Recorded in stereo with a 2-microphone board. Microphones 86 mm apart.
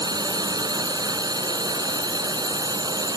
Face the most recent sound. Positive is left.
turn(degrees=-50)  # may be behind; listen again after turning